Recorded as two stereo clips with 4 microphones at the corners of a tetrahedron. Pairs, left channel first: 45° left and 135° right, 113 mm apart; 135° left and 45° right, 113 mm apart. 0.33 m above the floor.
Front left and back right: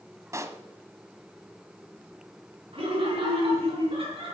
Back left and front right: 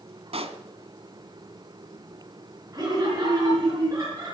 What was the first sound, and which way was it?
A pop, 70° right.